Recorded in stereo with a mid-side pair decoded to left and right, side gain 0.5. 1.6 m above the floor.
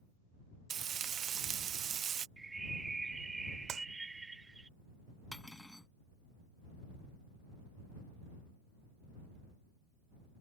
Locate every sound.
0.7 s frying: 50° right
2.4 s a bird: 15° right
3.7 s a clap: 60° right
5.3 s cutlery clinking: 10° left